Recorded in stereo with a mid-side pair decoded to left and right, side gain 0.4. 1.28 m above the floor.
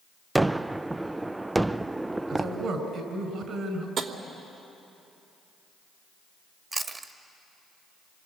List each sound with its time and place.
0.3 s a gunshot: 15° right, 0.6 m
2.3 s a man speaking: 60° right, 5.5 m
4.0 s tapping: 60° right, 3 m
6.7 s chewing: 30° right, 1.8 m